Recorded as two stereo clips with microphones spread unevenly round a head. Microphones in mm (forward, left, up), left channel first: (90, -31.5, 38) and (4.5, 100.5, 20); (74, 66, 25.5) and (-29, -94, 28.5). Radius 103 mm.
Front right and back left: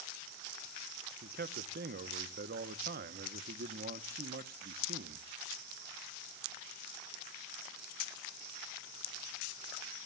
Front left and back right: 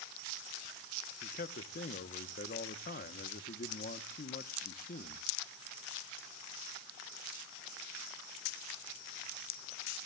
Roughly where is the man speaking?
Left.